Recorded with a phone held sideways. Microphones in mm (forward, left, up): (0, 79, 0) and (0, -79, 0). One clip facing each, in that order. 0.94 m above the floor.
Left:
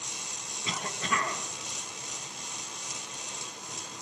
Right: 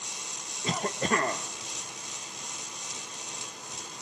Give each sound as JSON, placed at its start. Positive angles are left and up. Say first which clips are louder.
{"t": 0.6, "sound": "a cough", "louder": "right 6 dB", "side_deg": -45, "distance_m": 1.0}